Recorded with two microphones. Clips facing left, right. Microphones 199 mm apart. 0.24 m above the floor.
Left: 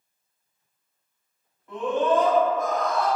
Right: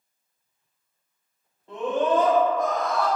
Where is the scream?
30° right (ahead or behind), 1.2 m; by 3.1 s 20° left (ahead or behind), 1.6 m.